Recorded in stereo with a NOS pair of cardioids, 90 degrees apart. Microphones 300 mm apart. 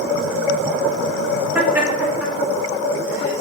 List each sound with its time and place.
1.6 s laughter: 5° right, 1.3 m